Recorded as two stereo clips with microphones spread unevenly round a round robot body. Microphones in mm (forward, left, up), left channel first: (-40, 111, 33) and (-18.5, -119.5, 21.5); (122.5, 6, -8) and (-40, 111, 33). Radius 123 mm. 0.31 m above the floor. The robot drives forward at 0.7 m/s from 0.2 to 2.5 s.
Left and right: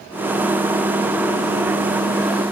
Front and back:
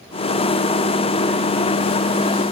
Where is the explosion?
No explosion in this recording.